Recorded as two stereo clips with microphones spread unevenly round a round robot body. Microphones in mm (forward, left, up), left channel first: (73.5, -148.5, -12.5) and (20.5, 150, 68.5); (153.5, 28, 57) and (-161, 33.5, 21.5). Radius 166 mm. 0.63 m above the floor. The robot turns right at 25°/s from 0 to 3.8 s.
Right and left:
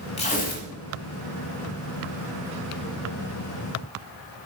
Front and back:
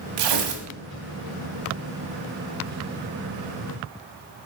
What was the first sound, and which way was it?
Tearing paper, 155° right.